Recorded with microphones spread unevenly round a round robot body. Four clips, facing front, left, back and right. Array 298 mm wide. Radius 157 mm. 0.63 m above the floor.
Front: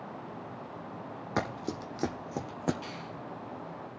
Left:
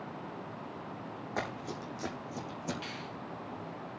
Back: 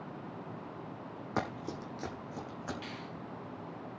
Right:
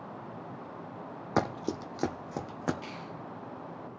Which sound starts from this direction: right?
Running footsteps, at 1.4 s.